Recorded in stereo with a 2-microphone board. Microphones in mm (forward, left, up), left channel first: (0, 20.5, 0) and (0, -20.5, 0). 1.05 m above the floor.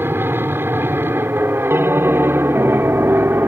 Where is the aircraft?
65° right (ahead or behind).